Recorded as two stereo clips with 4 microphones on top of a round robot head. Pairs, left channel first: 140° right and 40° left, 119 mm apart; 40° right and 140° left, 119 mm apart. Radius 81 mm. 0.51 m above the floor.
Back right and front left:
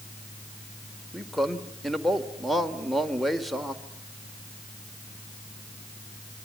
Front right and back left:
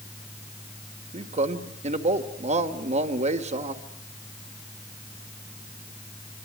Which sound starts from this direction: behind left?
A man speaking, at 1.1 s.